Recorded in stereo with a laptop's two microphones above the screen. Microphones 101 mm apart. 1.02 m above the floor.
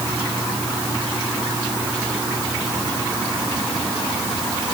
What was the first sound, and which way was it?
Only background noise.